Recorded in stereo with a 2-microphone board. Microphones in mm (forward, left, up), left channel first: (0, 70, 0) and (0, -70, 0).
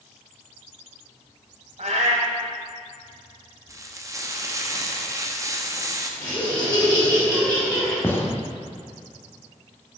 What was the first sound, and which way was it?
A cat meowing, 60° right (ahead or behind).